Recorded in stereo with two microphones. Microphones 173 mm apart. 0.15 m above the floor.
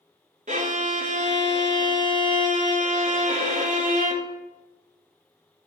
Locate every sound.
0.5 s a violin: 45° right (ahead or behind), 0.5 m